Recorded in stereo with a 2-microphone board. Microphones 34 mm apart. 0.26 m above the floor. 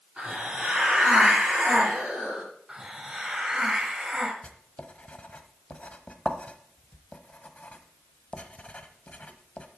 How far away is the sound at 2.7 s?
About 3 m.